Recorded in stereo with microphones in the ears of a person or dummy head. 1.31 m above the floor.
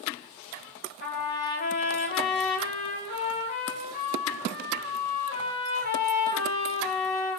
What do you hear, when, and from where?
1.0 s a trumpet: 45° left (ahead or behind), 1.3 m